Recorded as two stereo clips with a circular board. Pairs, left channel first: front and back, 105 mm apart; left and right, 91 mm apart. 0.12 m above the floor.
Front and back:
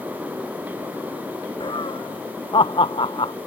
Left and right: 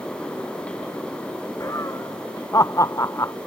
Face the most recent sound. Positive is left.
turn(degrees=35)